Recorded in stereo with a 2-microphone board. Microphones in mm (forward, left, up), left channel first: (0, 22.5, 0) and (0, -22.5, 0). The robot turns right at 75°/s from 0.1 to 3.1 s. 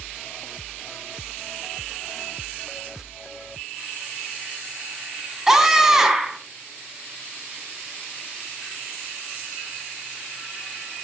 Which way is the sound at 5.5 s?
10° right (ahead or behind).